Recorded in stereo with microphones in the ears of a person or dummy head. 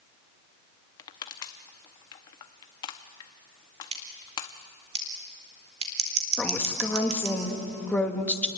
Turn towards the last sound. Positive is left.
turn(degrees=10)  # may be behind; listen again after turning